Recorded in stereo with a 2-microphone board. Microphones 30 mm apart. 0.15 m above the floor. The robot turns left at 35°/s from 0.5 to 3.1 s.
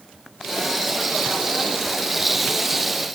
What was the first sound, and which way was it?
Only background noise.